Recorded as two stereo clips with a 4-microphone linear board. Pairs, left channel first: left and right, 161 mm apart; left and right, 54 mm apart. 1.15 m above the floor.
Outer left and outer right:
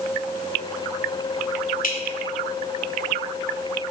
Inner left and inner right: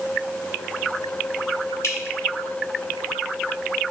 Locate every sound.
1.8 s dripping: 60° left (ahead or behind), 1.4 m